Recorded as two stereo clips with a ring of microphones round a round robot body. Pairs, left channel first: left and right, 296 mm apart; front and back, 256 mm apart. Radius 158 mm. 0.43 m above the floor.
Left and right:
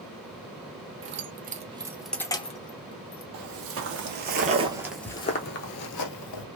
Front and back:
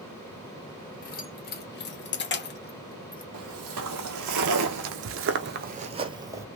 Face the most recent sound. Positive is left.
turn(degrees=100)